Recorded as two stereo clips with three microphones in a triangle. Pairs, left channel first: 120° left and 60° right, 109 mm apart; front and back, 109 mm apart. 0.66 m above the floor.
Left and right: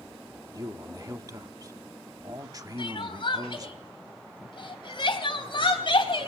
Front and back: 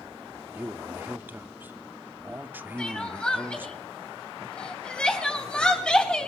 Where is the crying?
80° left, 3.5 m.